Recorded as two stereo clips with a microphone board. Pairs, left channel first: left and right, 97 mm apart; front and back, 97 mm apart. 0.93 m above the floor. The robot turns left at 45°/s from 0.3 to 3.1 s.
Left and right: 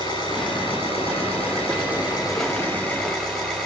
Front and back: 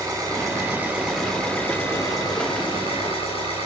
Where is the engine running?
130° left, 9 m; by 3.6 s 5° left, 9 m.